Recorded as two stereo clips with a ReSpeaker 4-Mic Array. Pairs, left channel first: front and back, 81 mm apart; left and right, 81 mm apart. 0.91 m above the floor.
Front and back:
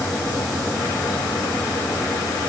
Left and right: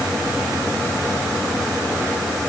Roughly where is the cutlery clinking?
I don't hear cutlery clinking.